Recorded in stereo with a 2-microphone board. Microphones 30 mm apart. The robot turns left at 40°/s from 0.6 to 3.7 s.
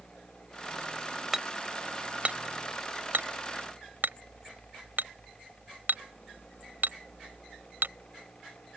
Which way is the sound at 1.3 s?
5° right (ahead or behind).